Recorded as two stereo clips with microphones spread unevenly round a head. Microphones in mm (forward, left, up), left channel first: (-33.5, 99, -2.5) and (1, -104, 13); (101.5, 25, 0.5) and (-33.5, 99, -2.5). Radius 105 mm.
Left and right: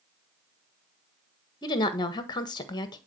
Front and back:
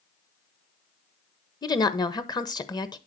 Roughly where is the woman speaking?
Ahead left.